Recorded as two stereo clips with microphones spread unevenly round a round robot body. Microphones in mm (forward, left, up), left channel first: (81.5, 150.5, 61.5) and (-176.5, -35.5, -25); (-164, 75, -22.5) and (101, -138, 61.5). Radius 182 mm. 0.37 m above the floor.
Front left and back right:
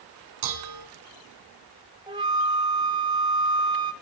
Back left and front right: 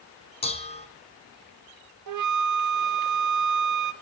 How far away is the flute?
About 1.0 m.